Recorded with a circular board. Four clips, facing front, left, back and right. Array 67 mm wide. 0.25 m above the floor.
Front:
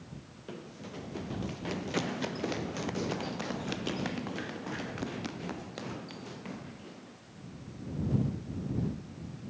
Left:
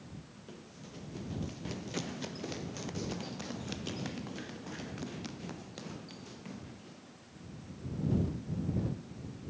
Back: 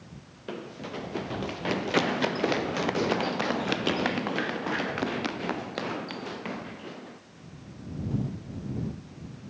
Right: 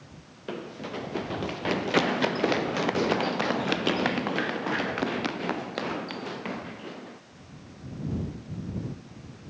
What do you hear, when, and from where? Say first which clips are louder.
0.5 s running footsteps: right 17 dB, back 7 dB; 120° right; by 7.2 s 125° right